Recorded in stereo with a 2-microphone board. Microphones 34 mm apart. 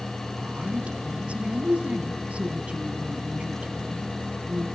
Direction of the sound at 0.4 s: 40° right (ahead or behind).